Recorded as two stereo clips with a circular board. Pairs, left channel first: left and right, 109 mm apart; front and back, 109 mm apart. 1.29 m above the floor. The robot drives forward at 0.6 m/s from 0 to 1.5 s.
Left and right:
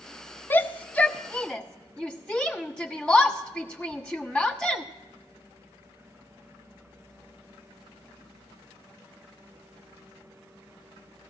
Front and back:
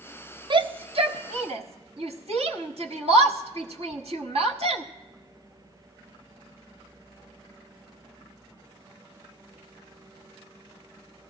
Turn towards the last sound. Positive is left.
turn(degrees=170)